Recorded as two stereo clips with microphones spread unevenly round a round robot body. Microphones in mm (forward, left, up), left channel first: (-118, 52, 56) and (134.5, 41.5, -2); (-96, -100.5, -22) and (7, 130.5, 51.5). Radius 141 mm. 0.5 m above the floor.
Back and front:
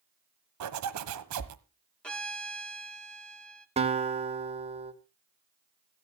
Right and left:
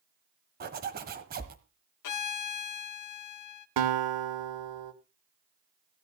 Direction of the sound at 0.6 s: 5° left.